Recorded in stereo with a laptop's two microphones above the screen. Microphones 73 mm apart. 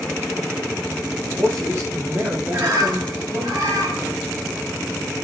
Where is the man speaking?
40° right (ahead or behind), 4 m; by 3.5 s 20° right (ahead or behind), 3 m.